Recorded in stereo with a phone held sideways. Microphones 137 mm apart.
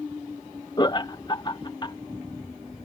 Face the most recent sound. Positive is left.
turn(degrees=30)  # may be behind; listen again after turning